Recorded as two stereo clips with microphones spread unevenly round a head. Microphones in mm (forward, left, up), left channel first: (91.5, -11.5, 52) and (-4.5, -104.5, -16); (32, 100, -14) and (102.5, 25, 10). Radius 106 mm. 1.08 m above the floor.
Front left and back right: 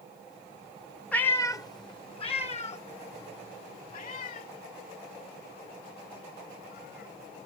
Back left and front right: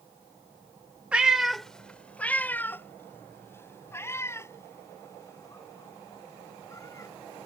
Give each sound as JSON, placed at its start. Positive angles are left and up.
{"t": 1.1, "sound": "a cat meowing", "azimuth_deg": 10}